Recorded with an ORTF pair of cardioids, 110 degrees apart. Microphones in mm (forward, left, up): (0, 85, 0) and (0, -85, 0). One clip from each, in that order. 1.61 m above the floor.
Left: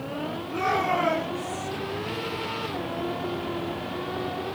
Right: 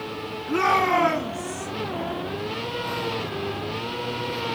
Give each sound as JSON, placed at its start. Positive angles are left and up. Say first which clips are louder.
{"t": 0.5, "sound": "a shout", "louder": "right 5 dB", "azimuth_deg": -60, "distance_m": 4.0}